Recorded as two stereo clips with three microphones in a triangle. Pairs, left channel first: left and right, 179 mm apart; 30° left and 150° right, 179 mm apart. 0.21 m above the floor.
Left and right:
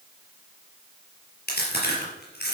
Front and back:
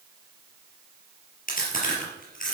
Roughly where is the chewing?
Ahead left.